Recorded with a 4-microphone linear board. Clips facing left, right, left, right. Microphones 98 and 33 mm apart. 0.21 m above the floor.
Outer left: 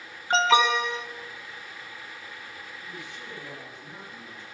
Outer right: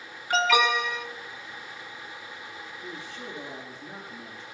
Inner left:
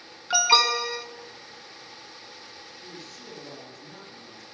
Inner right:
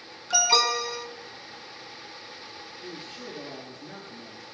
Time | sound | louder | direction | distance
0.3 | an alarm | outer left 2 dB, inner left 2 dB | 30° left (ahead or behind) | 1.1 m
2.8 | a man speaking | outer right 4 dB, inner right 5 dB | 35° right (ahead or behind) | 3 m